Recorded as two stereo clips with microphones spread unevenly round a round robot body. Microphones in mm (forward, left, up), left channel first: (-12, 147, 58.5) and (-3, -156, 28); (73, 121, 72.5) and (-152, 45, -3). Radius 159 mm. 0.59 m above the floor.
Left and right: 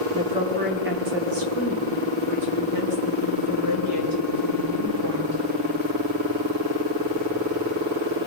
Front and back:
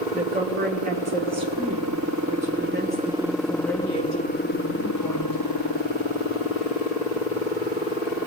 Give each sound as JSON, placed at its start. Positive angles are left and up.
{"t": 0.1, "sound": "a woman speaking", "azimuth_deg": -155, "distance_m": 1.6}